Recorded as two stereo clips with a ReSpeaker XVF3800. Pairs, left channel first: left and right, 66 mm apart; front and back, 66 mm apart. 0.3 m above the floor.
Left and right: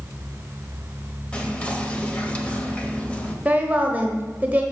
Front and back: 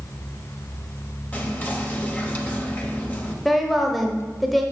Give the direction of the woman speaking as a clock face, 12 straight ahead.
3 o'clock.